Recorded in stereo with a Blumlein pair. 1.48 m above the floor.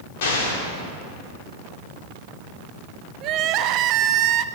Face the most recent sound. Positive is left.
turn(degrees=-35)